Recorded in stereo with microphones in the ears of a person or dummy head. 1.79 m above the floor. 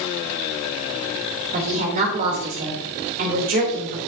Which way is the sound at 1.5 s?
45° right (ahead or behind).